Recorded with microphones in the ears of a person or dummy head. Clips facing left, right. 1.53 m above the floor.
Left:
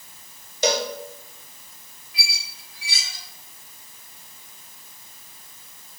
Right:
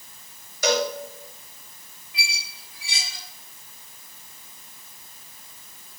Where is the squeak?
20° right (ahead or behind), 2 m.